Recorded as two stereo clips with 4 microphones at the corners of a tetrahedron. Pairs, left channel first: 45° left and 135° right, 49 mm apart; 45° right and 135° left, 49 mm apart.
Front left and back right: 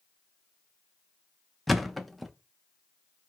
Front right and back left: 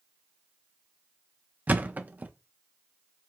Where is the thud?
135° left, 0.6 m.